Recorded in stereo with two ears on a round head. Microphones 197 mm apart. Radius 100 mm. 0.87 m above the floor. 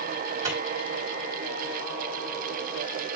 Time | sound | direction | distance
0.4 | a microwave | 15° right (ahead or behind) | 2 m